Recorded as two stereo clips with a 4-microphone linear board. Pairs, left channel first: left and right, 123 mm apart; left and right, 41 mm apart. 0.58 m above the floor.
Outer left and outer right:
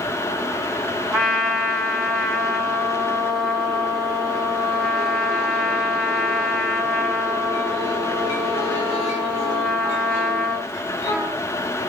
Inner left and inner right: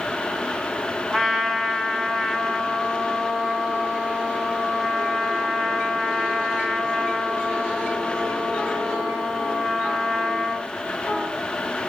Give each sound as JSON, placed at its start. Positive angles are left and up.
{"t": 1.1, "sound": "a trumpet", "side_deg": 0, "distance_m": 1.3}